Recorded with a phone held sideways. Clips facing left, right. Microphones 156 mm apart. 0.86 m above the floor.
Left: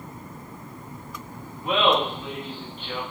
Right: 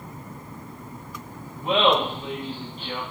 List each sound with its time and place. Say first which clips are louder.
1.6 s laughter: right 1 dB; 25° right (ahead or behind), 0.9 m; by 3.0 s 35° right (ahead or behind), 1.2 m